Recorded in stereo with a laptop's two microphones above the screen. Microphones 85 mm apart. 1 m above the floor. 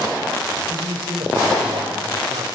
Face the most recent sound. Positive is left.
turn(degrees=-85)